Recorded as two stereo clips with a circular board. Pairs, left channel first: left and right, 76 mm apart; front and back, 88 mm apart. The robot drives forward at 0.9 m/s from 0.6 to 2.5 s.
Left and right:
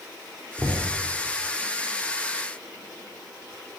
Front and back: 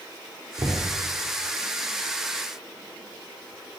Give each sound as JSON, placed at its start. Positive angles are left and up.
{"t": 0.6, "sound": "knocking", "azimuth_deg": -140, "distance_m": 3.5}